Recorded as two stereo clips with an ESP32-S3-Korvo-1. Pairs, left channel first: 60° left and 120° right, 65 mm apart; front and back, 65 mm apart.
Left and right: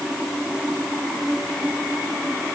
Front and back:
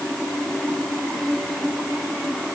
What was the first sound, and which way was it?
Only background noise.